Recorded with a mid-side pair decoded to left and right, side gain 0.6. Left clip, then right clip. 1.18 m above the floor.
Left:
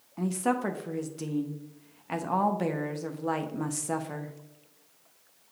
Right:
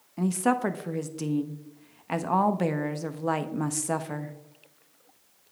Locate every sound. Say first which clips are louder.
0.2 s a woman speaking: right 3 dB; 20° right, 0.5 m